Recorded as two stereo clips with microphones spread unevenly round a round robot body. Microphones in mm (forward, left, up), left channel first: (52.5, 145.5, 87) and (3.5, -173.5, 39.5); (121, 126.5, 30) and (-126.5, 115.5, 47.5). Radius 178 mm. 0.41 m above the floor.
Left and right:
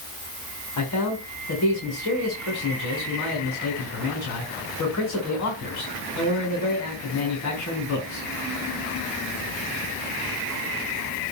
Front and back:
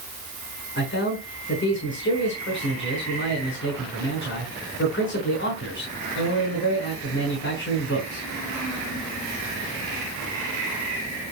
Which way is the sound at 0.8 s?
35° left.